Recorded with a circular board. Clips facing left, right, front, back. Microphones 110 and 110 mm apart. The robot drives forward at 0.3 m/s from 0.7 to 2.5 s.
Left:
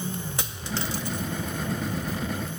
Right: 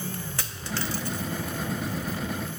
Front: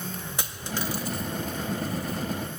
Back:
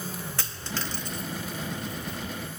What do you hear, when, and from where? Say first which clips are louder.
0.4 s a dropped coin: left 1 dB, front 2 dB; 50° left, 0.6 m; by 2.2 s 150° left, 0.7 m